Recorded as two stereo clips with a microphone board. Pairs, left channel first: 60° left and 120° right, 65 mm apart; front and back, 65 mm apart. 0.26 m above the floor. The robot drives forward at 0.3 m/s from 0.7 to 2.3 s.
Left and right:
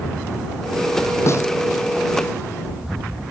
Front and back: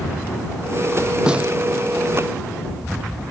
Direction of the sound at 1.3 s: 105° left.